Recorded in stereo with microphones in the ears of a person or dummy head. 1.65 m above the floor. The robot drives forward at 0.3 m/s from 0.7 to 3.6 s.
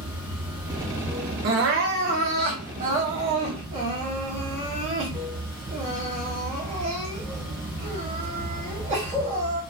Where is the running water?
25° right (ahead or behind), 2 m; by 9.7 s 30° right (ahead or behind), 1.7 m.